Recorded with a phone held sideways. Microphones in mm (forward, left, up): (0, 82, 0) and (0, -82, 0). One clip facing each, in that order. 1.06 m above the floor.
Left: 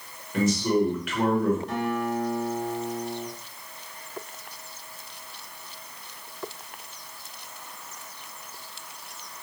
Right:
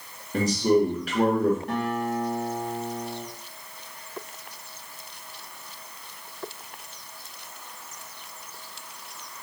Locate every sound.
0.3 s a man speaking: 35° right (ahead or behind), 1.3 m
1.7 s a guitar: 55° right (ahead or behind), 1.6 m